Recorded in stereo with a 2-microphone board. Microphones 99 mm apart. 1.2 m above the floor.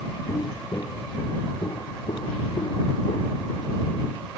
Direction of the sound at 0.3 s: 25° left (ahead or behind).